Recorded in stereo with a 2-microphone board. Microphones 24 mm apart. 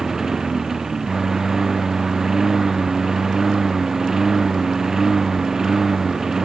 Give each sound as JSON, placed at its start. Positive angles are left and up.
{"t": 0.0, "sound": "a lawn mower", "side_deg": -25}